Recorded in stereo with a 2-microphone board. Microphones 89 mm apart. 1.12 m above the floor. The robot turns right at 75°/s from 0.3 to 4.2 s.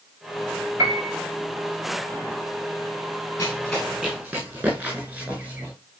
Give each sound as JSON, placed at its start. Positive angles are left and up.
{"t": 0.8, "sound": "a piano", "side_deg": -40, "distance_m": 6.0}
{"t": 3.4, "sound": "running footsteps", "side_deg": 35, "distance_m": 8.0}